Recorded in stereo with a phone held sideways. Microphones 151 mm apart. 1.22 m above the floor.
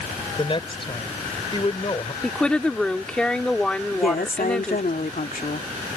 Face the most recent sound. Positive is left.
turn(degrees=75)  # may be behind; listen again after turning